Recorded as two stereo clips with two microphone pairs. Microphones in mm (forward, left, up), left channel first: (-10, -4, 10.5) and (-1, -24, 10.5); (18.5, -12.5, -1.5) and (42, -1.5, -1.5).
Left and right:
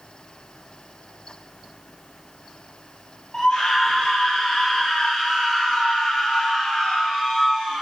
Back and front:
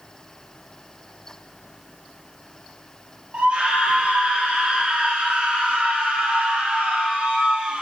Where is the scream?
55° left, 4 m; by 7.8 s 20° left, 4 m.